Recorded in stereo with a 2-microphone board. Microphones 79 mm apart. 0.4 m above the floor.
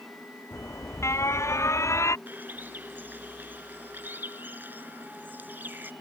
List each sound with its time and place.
0.5 s an alarm: 40° left (ahead or behind)
2.3 s a bird: 25° right (ahead or behind)